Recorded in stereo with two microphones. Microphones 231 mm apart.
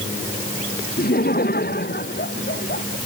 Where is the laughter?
40° left (ahead or behind); by 3.0 s 45° left (ahead or behind).